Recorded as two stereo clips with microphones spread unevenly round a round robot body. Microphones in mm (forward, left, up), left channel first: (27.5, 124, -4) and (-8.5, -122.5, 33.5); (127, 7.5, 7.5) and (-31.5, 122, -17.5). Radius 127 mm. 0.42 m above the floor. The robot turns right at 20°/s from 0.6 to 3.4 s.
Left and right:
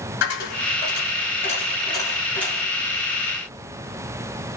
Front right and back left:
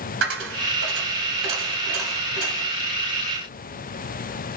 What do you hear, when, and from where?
0.2 s a dropped coin: 130° left, 1.5 m; by 2.7 s 170° left, 1.5 m